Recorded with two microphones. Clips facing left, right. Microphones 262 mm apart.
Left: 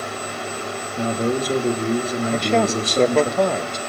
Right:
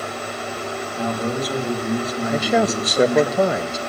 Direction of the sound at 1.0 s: 30° left (ahead or behind).